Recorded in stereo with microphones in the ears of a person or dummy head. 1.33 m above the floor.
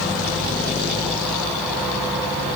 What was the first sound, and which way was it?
Only background noise.